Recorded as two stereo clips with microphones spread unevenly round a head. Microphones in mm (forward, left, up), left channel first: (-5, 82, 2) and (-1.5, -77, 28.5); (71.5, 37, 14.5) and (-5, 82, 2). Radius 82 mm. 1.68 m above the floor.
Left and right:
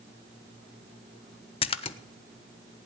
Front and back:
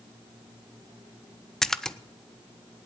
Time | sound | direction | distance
1.6 | a splash | 40° left | 0.5 m